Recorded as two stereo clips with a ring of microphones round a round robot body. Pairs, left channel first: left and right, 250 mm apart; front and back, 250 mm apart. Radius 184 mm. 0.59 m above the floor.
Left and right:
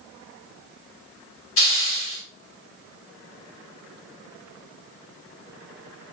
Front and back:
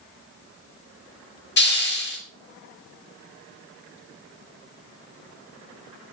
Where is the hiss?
45° left, 3 m.